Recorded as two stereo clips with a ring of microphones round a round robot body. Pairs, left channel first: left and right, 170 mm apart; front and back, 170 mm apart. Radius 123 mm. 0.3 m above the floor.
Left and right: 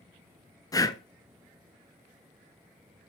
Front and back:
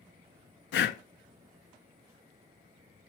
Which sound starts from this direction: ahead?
Breathing, at 0.7 s.